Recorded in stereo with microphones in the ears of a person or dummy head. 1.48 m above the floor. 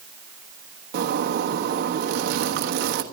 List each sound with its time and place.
0.9 s a zipper: 60° right (ahead or behind), 1.2 m